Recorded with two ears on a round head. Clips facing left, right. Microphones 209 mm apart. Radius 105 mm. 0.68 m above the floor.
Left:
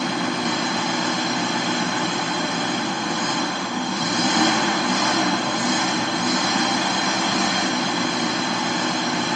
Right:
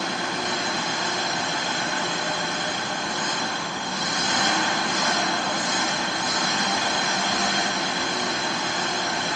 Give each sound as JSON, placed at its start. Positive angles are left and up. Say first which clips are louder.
{"t": 0.0, "sound": "an engine running", "louder": "left 6 dB", "side_deg": 50, "distance_m": 2.5}